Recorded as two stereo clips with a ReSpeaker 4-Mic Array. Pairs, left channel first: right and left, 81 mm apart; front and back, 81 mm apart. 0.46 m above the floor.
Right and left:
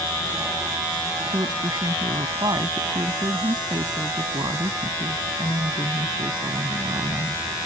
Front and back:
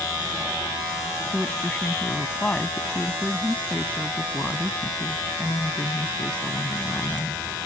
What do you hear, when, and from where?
1.3 s a woman speaking: 70° left